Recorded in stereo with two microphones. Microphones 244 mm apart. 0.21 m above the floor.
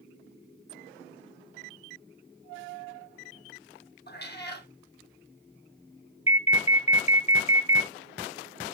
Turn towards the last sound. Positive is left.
turn(degrees=25)  # may be behind; listen again after turning